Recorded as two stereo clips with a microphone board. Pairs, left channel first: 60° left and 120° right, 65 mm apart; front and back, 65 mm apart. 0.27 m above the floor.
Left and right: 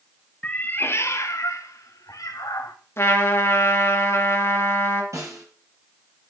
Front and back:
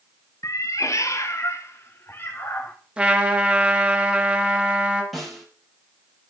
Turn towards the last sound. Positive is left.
turn(degrees=-90)